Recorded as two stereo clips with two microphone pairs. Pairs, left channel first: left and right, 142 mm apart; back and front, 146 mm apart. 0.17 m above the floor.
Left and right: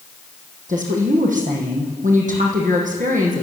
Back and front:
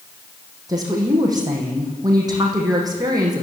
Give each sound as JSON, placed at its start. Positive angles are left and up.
{"t": 0.7, "sound": "a woman speaking", "azimuth_deg": -65, "distance_m": 7.0}